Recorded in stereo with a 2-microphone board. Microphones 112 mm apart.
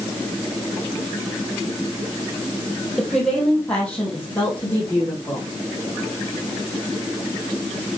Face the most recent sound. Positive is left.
turn(degrees=15)  # may be behind; listen again after turning